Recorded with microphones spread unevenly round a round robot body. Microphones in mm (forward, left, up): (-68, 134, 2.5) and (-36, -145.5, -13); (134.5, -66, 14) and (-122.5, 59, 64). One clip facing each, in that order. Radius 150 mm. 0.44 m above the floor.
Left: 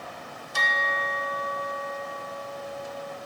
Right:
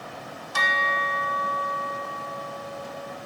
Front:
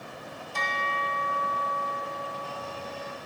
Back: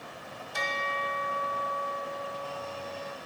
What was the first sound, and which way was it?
A bell, 125° right.